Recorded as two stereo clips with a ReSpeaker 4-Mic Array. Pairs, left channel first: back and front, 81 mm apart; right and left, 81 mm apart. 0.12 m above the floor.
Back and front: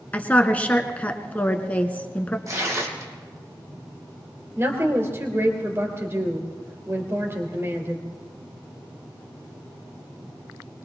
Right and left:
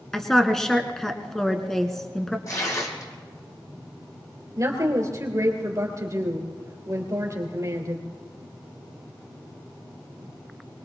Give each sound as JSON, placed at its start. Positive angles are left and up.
{"t": 0.1, "sound": "a woman speaking", "azimuth_deg": -165, "distance_m": 1.1}
{"t": 2.5, "sound": "tearing paper", "azimuth_deg": -50, "distance_m": 3.0}
{"t": 4.6, "sound": "a woman speaking", "azimuth_deg": 55, "distance_m": 3.0}